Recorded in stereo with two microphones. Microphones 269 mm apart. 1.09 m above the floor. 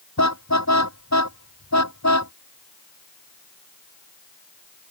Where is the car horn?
80° left.